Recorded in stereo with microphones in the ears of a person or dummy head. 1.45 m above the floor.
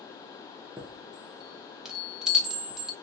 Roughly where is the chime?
Centre.